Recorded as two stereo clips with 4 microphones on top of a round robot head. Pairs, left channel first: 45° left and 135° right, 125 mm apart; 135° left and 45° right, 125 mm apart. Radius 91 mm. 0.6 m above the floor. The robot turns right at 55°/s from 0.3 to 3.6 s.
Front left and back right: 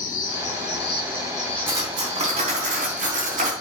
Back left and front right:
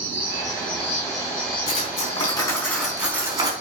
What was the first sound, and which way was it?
An insect, 60° left.